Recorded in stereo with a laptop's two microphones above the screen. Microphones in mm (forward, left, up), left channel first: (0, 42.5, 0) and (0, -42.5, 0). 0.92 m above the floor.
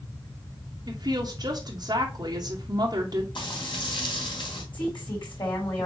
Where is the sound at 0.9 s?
50° right (ahead or behind), 1.2 m.